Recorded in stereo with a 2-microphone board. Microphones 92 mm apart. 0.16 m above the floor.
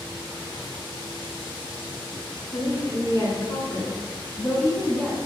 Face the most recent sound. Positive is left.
turn(degrees=10)  # may be behind; listen again after turning